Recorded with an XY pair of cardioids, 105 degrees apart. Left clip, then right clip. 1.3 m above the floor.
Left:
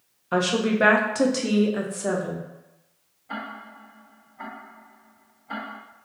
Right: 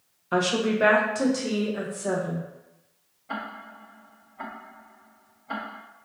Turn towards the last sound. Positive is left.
turn(degrees=-35)